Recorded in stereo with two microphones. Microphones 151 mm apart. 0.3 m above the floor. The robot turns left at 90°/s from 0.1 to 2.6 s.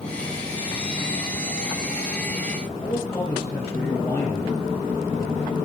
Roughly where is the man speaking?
Centre.